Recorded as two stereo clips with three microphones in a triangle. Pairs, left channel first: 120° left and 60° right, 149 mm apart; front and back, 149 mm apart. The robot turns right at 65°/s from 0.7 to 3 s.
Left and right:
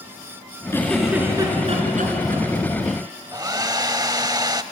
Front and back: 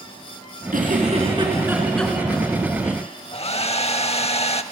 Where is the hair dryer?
10° right, 0.6 m.